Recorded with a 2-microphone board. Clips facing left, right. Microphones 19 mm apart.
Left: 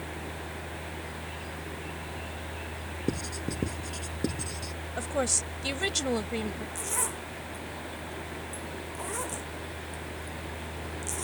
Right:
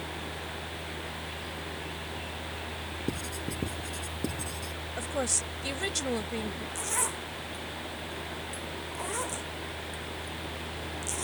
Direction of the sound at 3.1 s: 25° left (ahead or behind).